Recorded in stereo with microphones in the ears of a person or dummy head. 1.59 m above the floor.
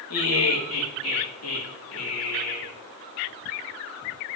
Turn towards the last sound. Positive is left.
turn(degrees=85)